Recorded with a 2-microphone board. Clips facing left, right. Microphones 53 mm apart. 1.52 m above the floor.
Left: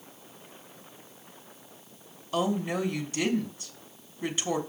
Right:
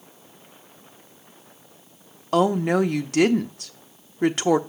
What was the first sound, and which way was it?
A woman speaking, 65° right (ahead or behind).